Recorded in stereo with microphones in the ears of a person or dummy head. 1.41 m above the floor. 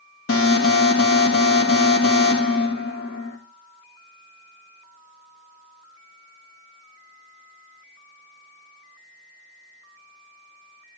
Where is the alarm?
70° left (ahead or behind), 2 m.